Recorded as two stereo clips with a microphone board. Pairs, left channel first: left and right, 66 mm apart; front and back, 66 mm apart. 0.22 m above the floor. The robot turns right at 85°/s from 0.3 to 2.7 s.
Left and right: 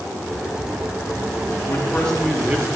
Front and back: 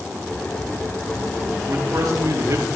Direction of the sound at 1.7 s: 130° left.